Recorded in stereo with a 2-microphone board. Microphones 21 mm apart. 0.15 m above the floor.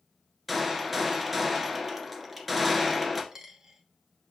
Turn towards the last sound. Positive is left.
turn(degrees=-30)  # may be behind; listen again after turning